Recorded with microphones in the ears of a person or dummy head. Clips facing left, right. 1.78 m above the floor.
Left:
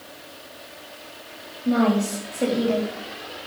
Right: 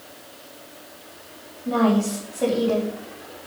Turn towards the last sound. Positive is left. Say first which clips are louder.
# even
turn(degrees=15)  # may be behind; listen again after turning